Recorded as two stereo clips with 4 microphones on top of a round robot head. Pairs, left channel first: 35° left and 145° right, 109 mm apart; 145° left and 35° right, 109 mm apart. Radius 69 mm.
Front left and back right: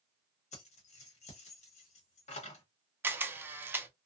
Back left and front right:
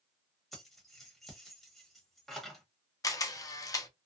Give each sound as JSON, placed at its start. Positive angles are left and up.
{"t": 0.5, "sound": "keys jangling", "azimuth_deg": 60, "distance_m": 1.0}
{"t": 3.0, "sound": "a camera shutter", "azimuth_deg": 160, "distance_m": 0.6}